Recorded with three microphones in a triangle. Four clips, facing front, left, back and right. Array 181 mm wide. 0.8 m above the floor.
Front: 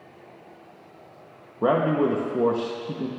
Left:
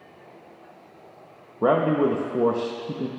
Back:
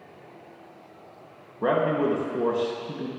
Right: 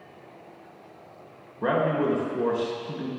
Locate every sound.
1.6 s a man speaking: 60° left, 0.7 m